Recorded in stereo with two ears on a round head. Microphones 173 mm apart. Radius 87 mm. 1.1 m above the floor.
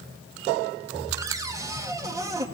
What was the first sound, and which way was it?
A cupboard door, 15° right (ahead or behind).